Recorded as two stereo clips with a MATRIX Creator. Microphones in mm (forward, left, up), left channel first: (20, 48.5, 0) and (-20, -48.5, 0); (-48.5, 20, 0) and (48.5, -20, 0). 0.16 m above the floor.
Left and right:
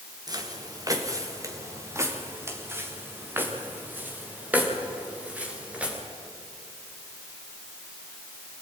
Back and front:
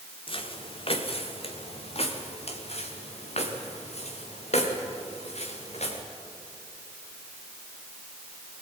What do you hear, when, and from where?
0.3 s footsteps: 165° right, 3.5 m; by 6.0 s 170° left, 6 m